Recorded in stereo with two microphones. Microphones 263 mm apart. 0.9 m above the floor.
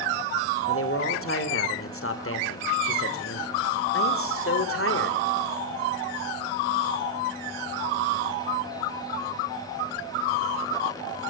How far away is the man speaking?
About 3 m.